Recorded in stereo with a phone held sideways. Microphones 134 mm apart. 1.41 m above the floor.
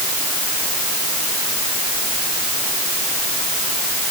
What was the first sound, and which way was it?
Only background noise.